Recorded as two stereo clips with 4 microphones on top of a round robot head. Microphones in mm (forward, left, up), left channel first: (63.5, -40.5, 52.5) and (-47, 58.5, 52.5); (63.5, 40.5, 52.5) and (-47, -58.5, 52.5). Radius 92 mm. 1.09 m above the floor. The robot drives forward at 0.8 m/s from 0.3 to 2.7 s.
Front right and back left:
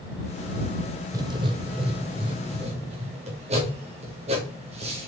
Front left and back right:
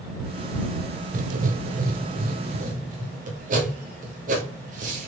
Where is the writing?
160° right, 0.7 m; by 5.1 s 175° right, 1.8 m.